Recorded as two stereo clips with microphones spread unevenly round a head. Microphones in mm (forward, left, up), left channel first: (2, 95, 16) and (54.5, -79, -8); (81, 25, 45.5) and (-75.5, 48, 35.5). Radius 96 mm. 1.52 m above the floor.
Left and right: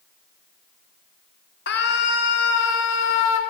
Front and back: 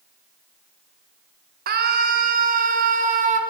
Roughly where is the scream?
Behind left.